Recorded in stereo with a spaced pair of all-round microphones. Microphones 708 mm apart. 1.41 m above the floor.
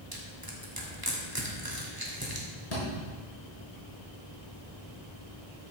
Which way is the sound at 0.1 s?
30° right (ahead or behind).